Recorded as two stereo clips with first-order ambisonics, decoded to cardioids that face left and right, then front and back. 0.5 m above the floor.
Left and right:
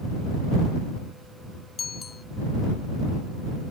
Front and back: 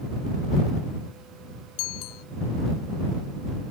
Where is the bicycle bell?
20° left.